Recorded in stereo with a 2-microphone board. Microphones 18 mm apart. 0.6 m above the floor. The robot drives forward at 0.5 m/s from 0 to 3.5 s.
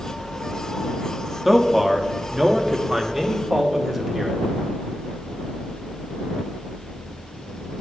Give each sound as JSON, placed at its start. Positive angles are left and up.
{"t": 1.4, "sound": "a man speaking", "side_deg": 0, "distance_m": 1.2}